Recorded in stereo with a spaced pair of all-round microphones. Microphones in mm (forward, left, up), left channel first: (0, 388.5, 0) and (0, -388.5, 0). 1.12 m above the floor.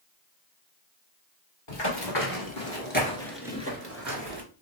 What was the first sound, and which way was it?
Running footsteps, 35° left (ahead or behind).